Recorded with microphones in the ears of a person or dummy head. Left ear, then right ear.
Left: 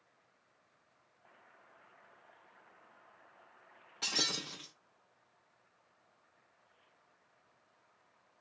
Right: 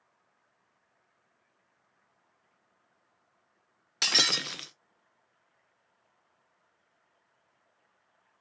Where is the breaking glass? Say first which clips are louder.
Right 9 dB; 45° right (ahead or behind), 0.5 m.